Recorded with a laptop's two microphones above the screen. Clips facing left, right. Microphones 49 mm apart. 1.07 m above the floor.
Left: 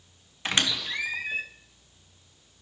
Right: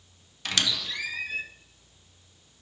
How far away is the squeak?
About 0.7 m.